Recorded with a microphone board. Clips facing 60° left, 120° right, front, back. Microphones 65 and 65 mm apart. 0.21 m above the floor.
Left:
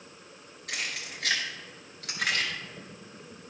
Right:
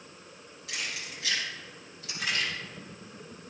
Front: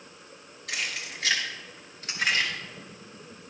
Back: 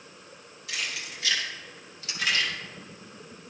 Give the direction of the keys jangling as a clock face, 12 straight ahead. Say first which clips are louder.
Left 2 dB, front 1 dB; 11 o'clock.